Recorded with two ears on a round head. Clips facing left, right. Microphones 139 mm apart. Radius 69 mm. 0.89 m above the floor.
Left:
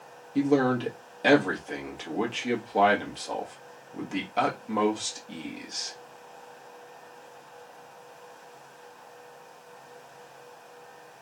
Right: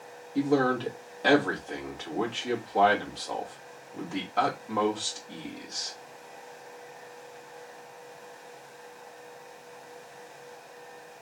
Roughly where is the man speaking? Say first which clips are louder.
Left 2 dB; left.